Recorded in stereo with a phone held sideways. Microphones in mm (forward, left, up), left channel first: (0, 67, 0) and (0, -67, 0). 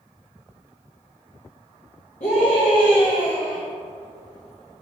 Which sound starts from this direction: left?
A scream, at 2.2 s.